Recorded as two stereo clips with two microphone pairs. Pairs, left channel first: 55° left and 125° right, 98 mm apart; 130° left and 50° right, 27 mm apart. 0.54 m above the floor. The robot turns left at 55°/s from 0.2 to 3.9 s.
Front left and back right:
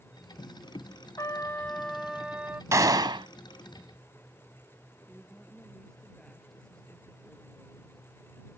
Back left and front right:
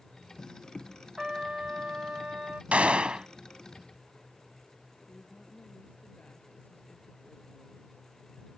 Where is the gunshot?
70° right; by 3.3 s 105° right.